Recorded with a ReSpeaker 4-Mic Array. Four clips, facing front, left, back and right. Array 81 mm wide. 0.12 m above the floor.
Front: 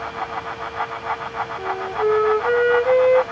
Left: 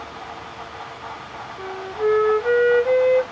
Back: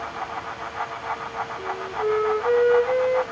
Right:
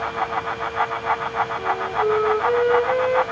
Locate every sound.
1.6 s a flute: 45° left, 1.4 m